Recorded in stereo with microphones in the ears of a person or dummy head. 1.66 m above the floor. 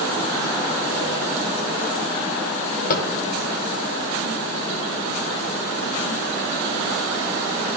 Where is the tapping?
50° left (ahead or behind), 1.2 m.